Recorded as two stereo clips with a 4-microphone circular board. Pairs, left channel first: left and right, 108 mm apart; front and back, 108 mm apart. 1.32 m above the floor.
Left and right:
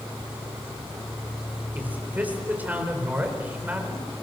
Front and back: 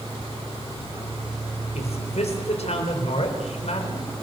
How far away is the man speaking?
About 4.5 m.